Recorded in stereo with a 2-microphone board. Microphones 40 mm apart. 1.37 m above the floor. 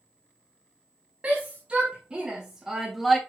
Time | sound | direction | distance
1.2 | a shout | 30° right (ahead or behind) | 2.5 m